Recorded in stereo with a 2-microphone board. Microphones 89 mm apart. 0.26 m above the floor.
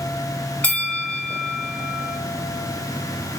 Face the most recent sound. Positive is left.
turn(degrees=15)  # may be behind; listen again after turning